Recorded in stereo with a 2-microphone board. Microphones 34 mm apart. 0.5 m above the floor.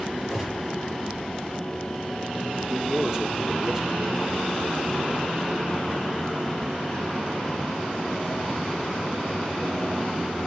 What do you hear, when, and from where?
0.3 s a gunshot: 15° right (ahead or behind), 6 m
2.7 s a man speaking: 15° right (ahead or behind), 1.0 m